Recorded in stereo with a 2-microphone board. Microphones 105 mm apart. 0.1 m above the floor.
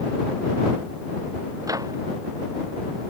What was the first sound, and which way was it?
A microwave, 35° right (ahead or behind).